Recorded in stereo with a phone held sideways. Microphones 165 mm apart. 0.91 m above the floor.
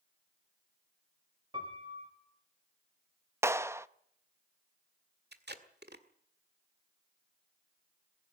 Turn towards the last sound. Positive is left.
turn(degrees=-80)